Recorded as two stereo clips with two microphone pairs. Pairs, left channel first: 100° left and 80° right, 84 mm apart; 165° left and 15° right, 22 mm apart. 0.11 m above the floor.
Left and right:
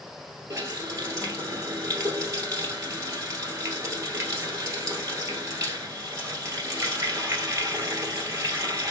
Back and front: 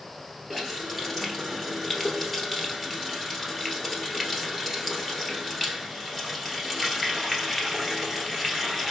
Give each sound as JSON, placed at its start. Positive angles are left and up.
{"t": 0.5, "sound": "a running tap", "azimuth_deg": -120, "distance_m": 1.6}